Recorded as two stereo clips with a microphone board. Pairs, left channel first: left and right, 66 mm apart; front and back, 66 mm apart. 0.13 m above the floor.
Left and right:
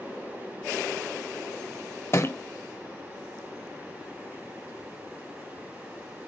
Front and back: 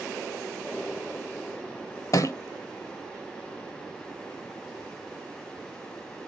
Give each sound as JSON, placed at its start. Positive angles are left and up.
{"t": 2.1, "sound": "a thud", "azimuth_deg": 40, "distance_m": 0.6}